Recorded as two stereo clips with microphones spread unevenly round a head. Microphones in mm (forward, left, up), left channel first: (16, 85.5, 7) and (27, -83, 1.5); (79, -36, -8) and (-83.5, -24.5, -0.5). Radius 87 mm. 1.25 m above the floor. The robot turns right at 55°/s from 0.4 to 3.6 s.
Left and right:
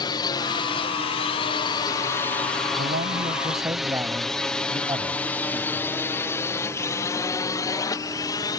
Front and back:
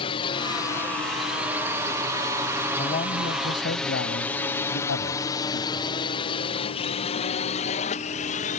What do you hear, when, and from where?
0.0 s a drone: 40° left; by 8.6 s 30° left
2.8 s a man speaking: 60° right; by 5.9 s 15° right